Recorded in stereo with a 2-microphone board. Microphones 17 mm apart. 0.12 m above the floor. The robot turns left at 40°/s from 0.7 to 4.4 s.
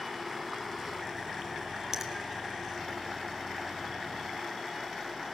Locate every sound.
1.9 s a finger snap: 25° right (ahead or behind), 3 m; by 2.1 s 20° right (ahead or behind), 3 m